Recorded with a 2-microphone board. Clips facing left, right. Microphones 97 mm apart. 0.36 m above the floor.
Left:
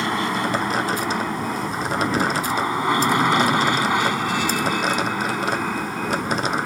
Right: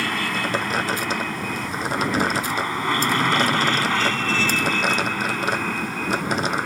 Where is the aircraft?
20° left (ahead or behind); by 6.7 s 10° left (ahead or behind).